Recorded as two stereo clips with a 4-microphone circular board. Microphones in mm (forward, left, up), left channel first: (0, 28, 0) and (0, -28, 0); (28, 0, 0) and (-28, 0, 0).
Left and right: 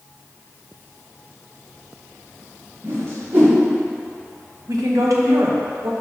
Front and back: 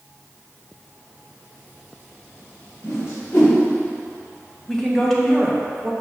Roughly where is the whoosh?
Ahead right.